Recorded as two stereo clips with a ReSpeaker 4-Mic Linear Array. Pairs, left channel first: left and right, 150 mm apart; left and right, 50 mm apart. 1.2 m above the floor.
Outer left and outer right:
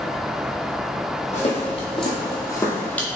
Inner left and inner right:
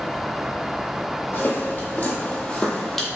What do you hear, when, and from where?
1.3 s footsteps: 50° left (ahead or behind), 1.8 m; by 3.1 s 5° left (ahead or behind), 1.4 m